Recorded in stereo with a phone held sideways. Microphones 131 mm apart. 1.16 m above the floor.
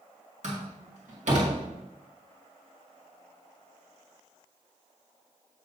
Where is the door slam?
60° right (ahead or behind), 2 m.